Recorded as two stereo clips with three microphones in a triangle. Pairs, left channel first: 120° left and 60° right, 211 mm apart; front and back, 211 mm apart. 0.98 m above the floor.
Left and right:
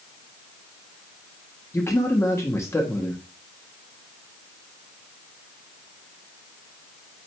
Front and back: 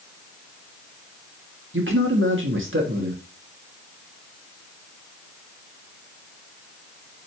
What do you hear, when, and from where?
1.7 s a man speaking: 160° right, 1.4 m